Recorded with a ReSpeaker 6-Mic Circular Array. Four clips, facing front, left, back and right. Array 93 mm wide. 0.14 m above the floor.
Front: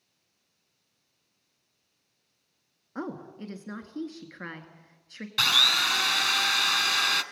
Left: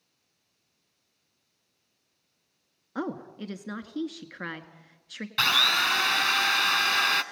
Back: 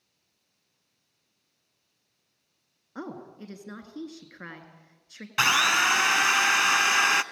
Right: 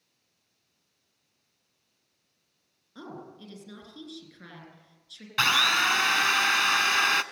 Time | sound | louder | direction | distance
3.0 | a woman speaking | left 9 dB, front 2 dB | 80° left | 1.9 m
5.4 | a drill | right 2 dB, back 5 dB | 165° right | 0.6 m